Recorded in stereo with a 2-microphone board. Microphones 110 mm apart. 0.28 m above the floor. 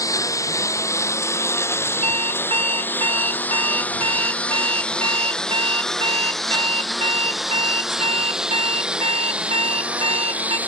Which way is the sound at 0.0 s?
30° left (ahead or behind).